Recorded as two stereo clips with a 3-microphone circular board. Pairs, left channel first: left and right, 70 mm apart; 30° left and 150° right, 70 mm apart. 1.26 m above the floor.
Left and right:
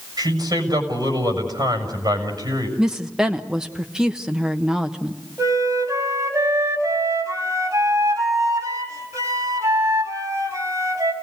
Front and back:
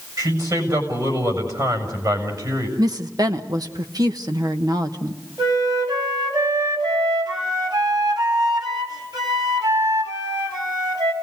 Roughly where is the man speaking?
Behind right.